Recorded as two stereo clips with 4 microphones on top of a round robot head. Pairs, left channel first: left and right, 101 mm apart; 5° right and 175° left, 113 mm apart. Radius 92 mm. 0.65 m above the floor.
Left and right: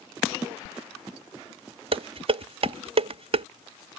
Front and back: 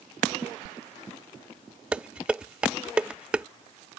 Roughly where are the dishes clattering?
Right.